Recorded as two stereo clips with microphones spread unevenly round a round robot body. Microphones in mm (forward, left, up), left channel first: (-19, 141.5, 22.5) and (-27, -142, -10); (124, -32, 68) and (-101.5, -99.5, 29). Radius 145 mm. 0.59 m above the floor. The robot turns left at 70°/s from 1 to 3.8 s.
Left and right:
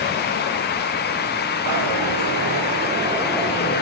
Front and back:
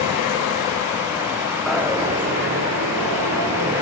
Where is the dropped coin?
70° right, 8 m; by 3.8 s 140° left, 8 m.